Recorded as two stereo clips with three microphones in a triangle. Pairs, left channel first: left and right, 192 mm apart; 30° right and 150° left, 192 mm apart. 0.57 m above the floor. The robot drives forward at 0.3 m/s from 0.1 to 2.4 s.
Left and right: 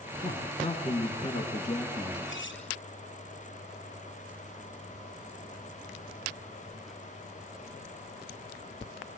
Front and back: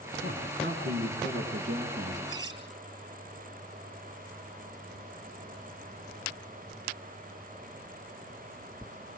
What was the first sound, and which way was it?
A man speaking, 145° left.